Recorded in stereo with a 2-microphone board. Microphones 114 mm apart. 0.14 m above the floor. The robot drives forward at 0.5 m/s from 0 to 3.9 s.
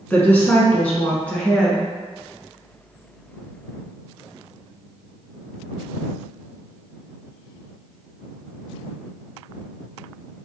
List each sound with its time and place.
0.1 s a woman speaking: 15° left (ahead or behind), 1.2 m; by 1.9 s 10° left (ahead or behind), 1.7 m